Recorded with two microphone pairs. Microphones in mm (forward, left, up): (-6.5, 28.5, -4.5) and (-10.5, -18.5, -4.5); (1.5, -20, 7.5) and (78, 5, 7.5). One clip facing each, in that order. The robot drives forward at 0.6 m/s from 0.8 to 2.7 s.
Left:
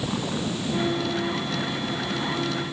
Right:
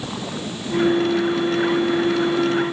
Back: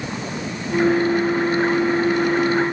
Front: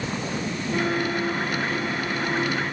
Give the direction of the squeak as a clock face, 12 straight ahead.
I don't hear a squeak.